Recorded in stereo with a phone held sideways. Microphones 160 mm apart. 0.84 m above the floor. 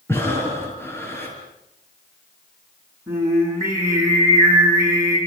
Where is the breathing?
15° left (ahead or behind), 6.5 m.